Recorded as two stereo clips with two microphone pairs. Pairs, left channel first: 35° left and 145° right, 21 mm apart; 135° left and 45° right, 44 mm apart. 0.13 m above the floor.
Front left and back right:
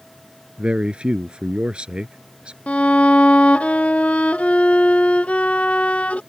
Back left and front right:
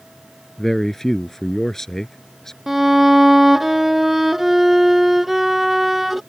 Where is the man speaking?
150° right.